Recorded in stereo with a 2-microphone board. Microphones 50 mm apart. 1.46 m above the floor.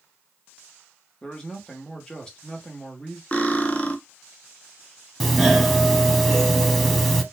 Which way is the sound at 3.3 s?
25° left (ahead or behind).